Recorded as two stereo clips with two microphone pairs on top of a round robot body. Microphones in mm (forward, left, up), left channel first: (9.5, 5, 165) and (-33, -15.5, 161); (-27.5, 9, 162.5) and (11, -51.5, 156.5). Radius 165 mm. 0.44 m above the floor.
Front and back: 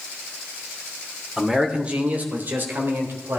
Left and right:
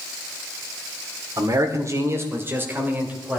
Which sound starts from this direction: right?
A man speaking, at 1.4 s.